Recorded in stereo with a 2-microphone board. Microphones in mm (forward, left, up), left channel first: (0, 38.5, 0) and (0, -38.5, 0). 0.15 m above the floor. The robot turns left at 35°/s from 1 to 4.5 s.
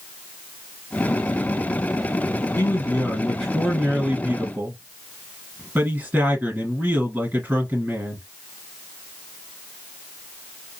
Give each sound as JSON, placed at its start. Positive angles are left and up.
{"t": 2.6, "sound": "a man speaking", "azimuth_deg": 40, "distance_m": 2.0}